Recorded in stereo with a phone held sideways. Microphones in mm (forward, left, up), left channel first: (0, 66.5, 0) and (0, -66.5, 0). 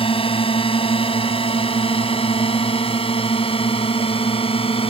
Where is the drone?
45° left (ahead or behind).